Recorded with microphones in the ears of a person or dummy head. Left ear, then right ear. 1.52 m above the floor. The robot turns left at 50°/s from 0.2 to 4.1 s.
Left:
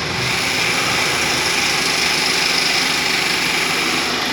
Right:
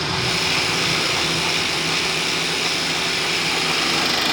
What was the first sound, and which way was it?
An engine running, 175° left.